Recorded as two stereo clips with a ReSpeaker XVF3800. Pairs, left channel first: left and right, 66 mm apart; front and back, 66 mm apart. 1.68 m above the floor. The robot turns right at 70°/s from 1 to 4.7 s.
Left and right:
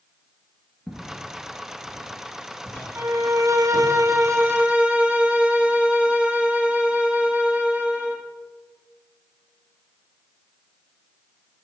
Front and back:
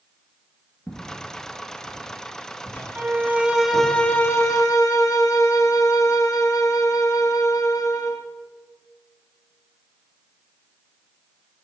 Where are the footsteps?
25° left, 1.7 m; by 3.9 s 125° left, 4 m.